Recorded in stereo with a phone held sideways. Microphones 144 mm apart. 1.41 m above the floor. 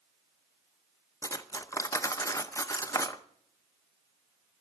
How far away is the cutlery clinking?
About 0.6 m.